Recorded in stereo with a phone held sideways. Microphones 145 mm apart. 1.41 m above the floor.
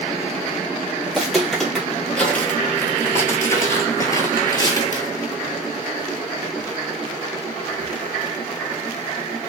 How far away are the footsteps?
About 2.0 m.